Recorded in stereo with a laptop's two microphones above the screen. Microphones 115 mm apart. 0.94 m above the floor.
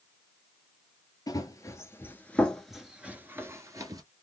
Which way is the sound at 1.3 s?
35° left (ahead or behind).